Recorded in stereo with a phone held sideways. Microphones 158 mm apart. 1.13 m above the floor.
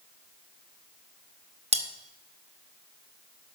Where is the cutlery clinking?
45° right (ahead or behind), 0.8 m.